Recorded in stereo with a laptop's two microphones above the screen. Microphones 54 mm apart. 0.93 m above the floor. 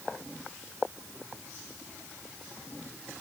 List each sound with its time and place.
Only background noise.